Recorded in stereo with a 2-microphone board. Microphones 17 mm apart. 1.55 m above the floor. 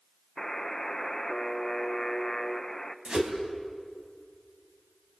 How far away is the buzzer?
About 1.0 m.